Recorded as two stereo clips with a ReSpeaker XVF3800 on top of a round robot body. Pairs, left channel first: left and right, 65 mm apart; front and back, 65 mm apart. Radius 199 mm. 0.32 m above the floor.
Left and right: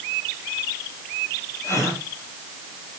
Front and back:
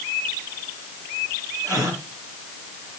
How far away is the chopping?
No chopping in this recording.